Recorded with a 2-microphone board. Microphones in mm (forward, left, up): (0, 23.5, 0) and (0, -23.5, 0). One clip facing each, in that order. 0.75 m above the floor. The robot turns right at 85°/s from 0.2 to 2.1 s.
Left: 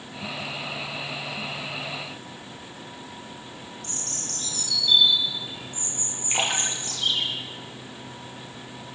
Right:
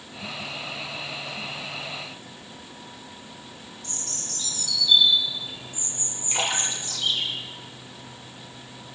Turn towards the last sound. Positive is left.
turn(degrees=30)  # may be behind; listen again after turning